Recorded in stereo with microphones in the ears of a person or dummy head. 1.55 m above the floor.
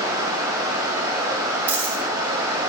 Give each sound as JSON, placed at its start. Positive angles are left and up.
{"t": 0.0, "sound": "running water", "side_deg": -20, "distance_m": 3.0}
{"t": 1.7, "sound": "a dropped coin", "side_deg": -15, "distance_m": 3.0}